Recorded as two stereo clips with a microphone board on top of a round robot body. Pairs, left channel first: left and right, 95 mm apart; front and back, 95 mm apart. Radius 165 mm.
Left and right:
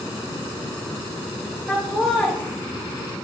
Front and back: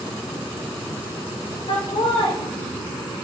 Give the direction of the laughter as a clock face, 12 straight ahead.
12 o'clock.